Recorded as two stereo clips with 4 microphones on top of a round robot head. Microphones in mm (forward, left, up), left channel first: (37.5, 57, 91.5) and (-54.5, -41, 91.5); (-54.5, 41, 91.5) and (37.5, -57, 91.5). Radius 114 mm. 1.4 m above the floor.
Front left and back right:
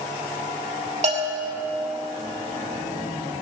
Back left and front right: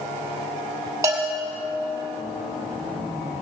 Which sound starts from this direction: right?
A bell, at 1.0 s.